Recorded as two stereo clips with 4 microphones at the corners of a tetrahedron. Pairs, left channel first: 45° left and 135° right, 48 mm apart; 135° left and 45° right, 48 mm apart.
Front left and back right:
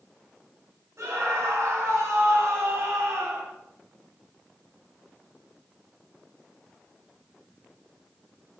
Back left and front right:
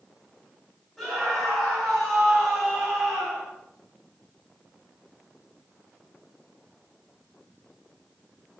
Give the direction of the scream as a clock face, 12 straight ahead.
5 o'clock.